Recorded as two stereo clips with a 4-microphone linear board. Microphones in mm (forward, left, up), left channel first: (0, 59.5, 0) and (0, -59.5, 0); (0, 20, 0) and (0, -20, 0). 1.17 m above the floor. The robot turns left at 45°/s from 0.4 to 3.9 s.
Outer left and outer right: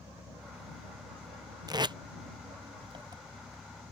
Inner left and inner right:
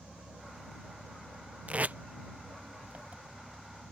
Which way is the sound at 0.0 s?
20° right.